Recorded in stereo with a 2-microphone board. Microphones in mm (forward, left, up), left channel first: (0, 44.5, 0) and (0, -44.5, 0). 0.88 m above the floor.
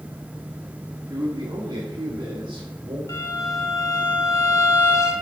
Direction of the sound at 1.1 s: 50° right (ahead or behind).